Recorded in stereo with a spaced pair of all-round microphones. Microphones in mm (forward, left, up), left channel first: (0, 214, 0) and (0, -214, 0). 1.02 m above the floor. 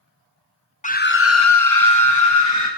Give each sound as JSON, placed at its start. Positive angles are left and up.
{"t": 0.8, "sound": "a scream", "side_deg": 15, "distance_m": 0.8}